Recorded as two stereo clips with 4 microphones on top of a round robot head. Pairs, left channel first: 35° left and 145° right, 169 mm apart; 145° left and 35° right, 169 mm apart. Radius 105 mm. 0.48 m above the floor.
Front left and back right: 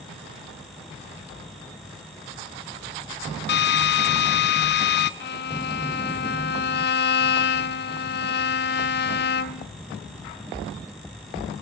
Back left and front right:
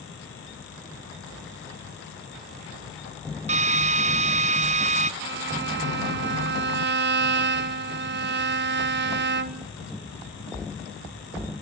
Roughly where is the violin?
Ahead.